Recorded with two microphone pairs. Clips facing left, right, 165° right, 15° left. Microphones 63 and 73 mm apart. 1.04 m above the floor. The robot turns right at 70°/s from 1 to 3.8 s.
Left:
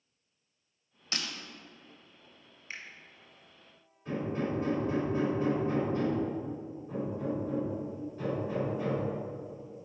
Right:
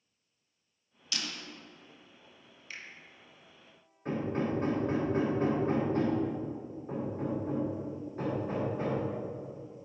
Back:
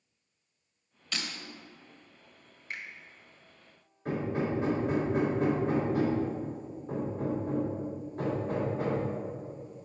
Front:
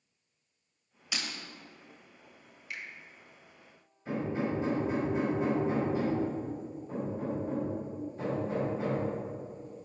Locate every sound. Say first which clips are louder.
1.1 s breaking glass: left 1 dB, even; 90° left, 0.9 m; by 1.3 s 100° left, 0.9 m
2.7 s a finger snap: left 2 dB, back 1 dB; 150° left, 0.9 m; by 2.9 s 160° left, 0.9 m
4.0 s hammering: right 1 dB, back 1 dB; 130° right, 2.5 m